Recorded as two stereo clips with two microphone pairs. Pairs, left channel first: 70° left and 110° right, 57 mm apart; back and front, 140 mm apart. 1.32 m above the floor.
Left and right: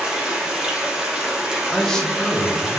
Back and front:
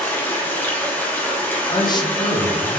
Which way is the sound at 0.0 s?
145° right.